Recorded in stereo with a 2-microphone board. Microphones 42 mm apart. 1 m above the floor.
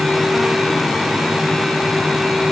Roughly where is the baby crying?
I don't hear a baby crying.